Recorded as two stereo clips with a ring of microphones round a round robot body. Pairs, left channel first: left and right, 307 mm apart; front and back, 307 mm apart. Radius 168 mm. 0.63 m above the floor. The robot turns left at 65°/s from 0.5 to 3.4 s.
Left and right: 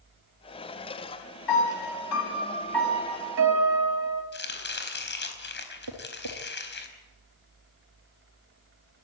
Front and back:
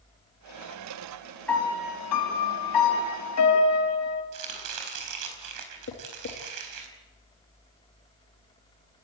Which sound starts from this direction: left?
A piano, at 1.5 s.